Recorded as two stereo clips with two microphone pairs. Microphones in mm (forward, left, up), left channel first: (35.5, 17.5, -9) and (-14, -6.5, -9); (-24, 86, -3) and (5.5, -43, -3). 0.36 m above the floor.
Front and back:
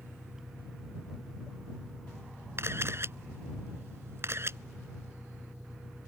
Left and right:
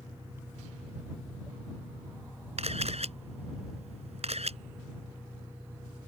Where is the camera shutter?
115° right.